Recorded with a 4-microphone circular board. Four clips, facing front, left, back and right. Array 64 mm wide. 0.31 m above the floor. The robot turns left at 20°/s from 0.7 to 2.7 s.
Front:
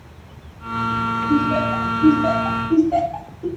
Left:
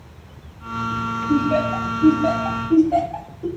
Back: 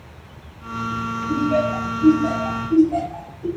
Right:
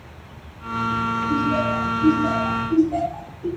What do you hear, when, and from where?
1.3 s laughter: 90° left, 1.6 m; by 3.5 s 60° left, 1.6 m